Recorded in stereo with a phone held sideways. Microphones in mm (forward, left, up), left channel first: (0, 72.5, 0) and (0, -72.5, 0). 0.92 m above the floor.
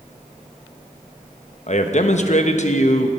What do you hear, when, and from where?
1.7 s a man speaking: 55° left (ahead or behind), 0.9 m